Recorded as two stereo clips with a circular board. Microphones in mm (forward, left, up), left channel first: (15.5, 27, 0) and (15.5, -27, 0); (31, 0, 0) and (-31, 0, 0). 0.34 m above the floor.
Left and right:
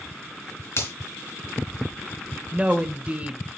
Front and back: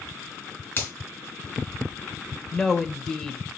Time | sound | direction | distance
0.8 | a finger snap | 55° left | 3.5 m
2.5 | a woman speaking | 70° right | 1.0 m